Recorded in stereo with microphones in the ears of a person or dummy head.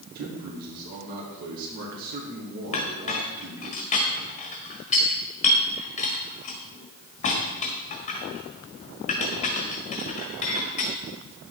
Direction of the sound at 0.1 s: 45° right (ahead or behind).